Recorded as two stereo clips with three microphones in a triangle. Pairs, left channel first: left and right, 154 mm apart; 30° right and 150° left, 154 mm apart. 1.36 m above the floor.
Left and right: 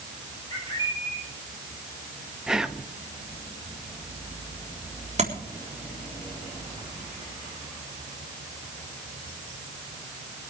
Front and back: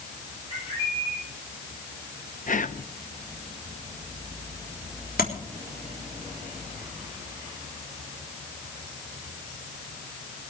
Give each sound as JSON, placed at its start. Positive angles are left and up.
{"t": 0.5, "sound": "a bird", "azimuth_deg": 25, "distance_m": 10.0}
{"t": 2.5, "sound": "whispering", "azimuth_deg": -5, "distance_m": 0.7}
{"t": 5.2, "sound": "tapping", "azimuth_deg": -45, "distance_m": 3.5}